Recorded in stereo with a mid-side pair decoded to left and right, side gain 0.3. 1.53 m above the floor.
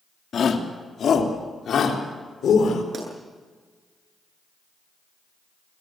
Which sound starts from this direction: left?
A shout, at 0.3 s.